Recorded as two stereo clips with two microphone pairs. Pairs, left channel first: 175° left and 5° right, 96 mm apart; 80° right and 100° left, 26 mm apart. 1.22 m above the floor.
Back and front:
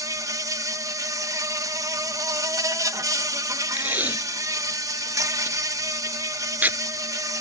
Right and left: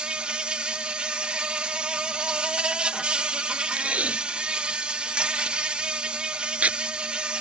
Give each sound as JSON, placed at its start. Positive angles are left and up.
{"t": 0.0, "sound": "an insect", "azimuth_deg": 50}
{"t": 3.7, "sound": "tape being pulled", "azimuth_deg": 70}